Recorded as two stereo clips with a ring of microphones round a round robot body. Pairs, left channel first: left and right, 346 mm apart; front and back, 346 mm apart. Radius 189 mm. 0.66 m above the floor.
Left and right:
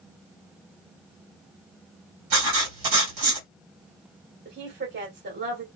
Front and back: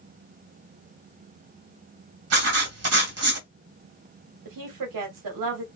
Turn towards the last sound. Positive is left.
turn(degrees=-155)